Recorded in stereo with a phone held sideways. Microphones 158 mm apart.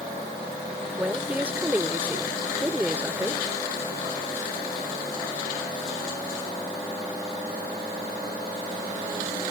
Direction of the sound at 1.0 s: 10° right (ahead or behind).